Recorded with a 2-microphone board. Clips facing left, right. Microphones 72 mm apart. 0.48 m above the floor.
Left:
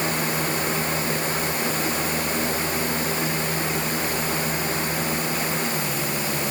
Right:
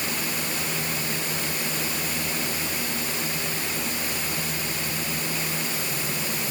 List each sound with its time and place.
Only background noise.